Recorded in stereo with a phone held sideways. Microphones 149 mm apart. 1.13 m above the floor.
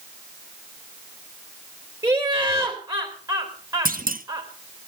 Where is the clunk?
75° right (ahead or behind), 1.1 m.